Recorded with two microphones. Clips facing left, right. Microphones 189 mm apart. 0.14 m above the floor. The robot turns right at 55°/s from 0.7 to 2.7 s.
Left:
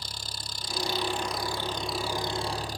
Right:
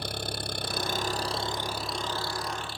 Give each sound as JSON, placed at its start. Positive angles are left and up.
{"t": 0.0, "sound": "an engine running", "azimuth_deg": -65}